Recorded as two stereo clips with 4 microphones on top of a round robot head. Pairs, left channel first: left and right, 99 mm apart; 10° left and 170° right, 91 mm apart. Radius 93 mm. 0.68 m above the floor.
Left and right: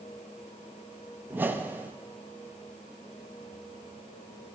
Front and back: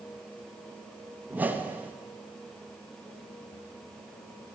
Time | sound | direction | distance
1.3 | a whoosh | 130° right | 0.8 m